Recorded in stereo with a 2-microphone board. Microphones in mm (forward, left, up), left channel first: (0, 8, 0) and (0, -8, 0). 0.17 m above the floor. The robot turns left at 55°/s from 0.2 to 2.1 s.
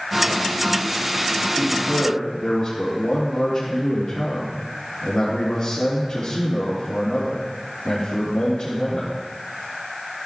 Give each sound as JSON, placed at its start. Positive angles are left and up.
{"t": 1.6, "sound": "a man speaking", "side_deg": 45, "distance_m": 5.0}